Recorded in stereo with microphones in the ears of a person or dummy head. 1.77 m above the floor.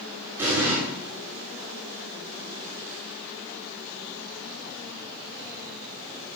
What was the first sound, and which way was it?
An explosion, 15° right (ahead or behind).